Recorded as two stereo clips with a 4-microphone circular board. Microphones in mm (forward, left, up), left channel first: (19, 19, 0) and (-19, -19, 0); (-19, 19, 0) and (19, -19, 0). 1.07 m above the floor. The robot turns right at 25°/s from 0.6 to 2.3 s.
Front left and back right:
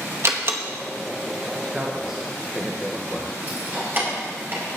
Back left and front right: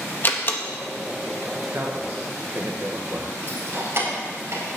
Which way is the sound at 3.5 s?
85° right.